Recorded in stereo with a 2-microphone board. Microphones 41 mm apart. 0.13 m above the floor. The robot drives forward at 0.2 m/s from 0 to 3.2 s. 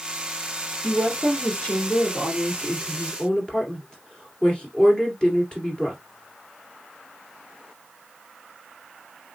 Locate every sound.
0.8 s a woman speaking: 25° left (ahead or behind), 1.9 m; by 6.0 s 20° left (ahead or behind), 2 m